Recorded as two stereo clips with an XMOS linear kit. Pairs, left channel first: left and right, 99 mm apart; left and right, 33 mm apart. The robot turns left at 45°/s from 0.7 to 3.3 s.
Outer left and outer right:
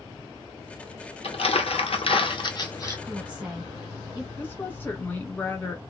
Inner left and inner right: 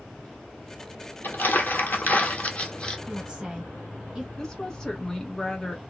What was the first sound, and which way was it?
Crumpling, 105° left.